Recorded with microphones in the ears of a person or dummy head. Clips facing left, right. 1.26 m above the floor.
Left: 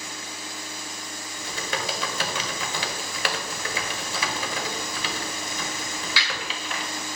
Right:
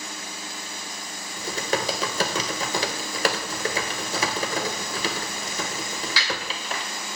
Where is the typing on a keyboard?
35° right (ahead or behind), 0.6 m.